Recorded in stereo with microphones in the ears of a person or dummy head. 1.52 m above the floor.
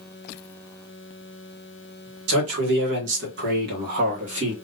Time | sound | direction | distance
2.3 | a man speaking | 80° right | 1.4 m